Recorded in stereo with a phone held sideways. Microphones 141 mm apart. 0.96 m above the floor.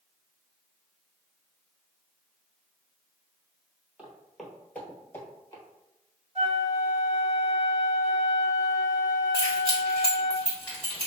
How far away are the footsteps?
About 1.0 m.